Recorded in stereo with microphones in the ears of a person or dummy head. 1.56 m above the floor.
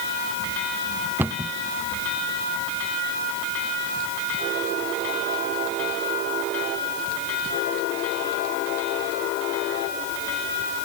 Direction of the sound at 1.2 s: 5° right (ahead or behind).